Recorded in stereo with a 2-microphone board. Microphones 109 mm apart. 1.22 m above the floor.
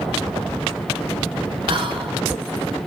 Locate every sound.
1.7 s whispering: 50° right (ahead or behind), 0.5 m